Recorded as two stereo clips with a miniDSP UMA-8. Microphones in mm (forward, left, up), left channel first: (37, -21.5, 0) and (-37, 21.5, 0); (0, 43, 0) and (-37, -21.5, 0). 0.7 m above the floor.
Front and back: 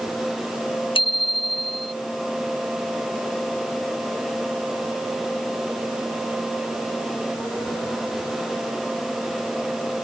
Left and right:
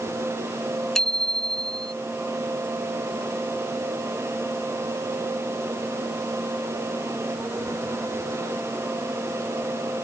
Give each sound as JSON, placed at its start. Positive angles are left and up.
{"t": 0.9, "sound": "a bicycle bell", "azimuth_deg": -25}